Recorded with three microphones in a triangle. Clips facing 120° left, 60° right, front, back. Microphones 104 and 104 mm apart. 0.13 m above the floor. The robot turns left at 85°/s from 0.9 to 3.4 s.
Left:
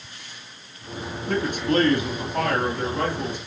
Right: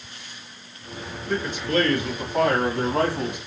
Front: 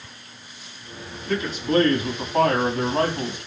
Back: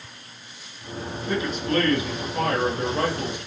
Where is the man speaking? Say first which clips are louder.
Left 2 dB, front 2 dB; 110° left, 5 m; by 3.4 s 70° right, 5 m.